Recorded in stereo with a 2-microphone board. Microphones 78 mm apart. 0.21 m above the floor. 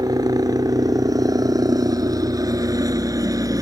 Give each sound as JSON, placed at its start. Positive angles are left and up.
{"t": 0.0, "sound": "a helicopter", "side_deg": -55}